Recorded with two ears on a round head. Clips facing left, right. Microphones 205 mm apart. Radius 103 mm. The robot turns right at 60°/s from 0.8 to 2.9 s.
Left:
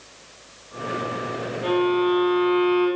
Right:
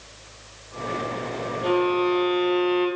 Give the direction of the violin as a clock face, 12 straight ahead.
6 o'clock.